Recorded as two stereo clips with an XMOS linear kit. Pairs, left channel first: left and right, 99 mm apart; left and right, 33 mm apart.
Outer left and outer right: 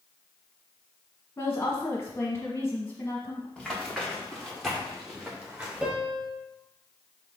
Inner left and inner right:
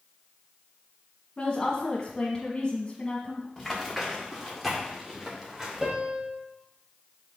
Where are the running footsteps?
5° left (ahead or behind), 3 m; by 5.9 s 10° right (ahead or behind), 2.5 m.